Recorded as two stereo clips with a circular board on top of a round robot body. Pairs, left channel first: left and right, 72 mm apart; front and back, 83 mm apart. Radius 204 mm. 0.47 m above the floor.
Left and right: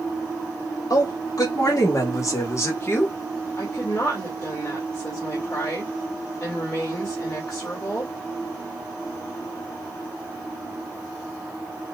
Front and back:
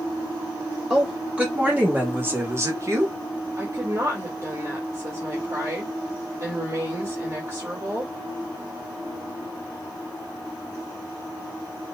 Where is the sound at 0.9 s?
105° left, 2.5 m; by 3.1 s 140° left, 1.6 m.